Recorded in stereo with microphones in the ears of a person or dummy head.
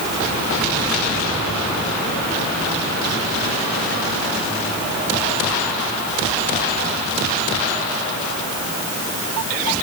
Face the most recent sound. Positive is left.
No sound to turn to.